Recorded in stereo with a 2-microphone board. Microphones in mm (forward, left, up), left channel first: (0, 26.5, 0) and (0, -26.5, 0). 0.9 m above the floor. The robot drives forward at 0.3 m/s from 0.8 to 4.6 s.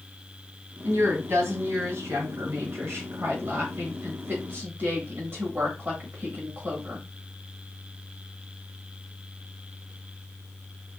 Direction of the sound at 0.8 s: 55° right (ahead or behind).